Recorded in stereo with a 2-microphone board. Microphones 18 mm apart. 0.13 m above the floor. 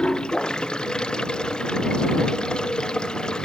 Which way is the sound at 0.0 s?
65° left (ahead or behind).